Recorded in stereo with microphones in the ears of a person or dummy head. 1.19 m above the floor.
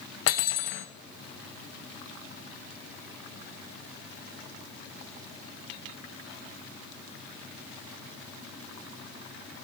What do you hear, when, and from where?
0.3 s cutlery clinking: 60° left (ahead or behind), 0.6 m